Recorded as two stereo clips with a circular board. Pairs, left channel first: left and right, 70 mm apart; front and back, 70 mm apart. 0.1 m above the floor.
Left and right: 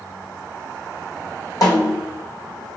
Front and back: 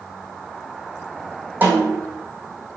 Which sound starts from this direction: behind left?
A snare drum, at 1.6 s.